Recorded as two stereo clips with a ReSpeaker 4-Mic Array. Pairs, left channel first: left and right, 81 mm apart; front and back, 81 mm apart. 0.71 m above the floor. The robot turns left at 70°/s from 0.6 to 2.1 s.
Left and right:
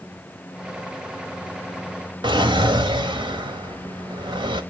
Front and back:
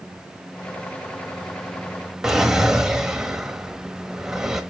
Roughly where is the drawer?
Right.